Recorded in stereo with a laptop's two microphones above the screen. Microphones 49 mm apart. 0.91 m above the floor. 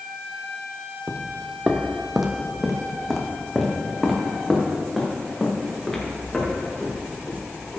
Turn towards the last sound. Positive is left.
turn(degrees=15)  # may be behind; listen again after turning